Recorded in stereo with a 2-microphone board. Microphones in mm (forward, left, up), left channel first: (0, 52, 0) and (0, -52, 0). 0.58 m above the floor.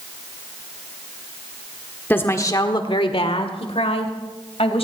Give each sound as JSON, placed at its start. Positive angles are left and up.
{"t": 2.1, "sound": "a woman speaking", "side_deg": 20, "distance_m": 1.3}